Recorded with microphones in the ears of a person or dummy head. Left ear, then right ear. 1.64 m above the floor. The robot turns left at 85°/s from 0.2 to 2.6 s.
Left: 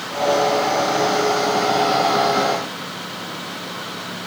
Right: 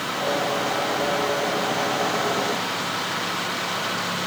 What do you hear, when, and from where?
Only background noise.